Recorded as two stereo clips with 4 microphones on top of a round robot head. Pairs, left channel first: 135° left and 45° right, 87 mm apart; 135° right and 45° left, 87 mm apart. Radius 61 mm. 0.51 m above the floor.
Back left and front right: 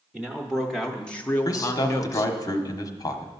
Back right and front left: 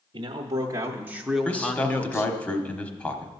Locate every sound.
0.1 s a man speaking: 35° left, 1.0 m; by 2.3 s 175° left, 1.0 m
1.4 s a man speaking: 160° left, 1.1 m